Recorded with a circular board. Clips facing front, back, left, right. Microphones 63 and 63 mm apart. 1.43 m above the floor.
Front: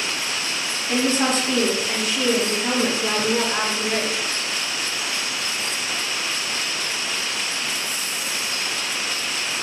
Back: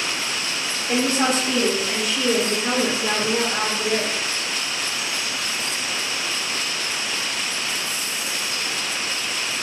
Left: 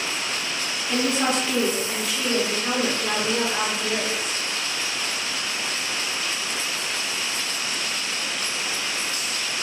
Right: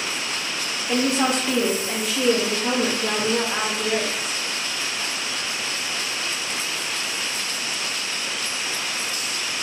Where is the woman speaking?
110° right, 1.0 m; by 4.2 s 25° right, 1.4 m.